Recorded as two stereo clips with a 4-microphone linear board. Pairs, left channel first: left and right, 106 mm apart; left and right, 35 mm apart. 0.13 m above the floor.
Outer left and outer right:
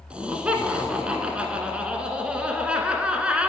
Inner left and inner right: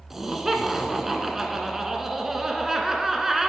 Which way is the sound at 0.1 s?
10° right (ahead or behind).